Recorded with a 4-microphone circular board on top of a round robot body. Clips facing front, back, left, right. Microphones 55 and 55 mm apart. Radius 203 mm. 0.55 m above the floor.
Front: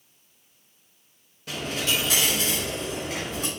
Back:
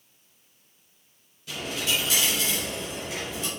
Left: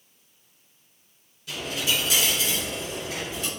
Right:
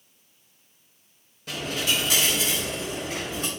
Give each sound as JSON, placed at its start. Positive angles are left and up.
{"t": 1.5, "sound": "a dropped coin", "azimuth_deg": -45, "distance_m": 0.6}